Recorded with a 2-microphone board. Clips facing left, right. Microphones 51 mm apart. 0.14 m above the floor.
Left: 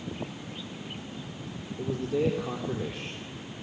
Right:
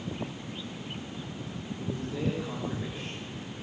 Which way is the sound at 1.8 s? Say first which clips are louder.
Left 6 dB; 65° left (ahead or behind).